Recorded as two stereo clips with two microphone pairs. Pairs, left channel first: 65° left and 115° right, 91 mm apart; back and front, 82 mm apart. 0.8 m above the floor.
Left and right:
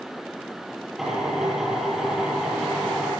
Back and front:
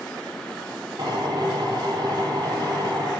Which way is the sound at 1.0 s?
30° right.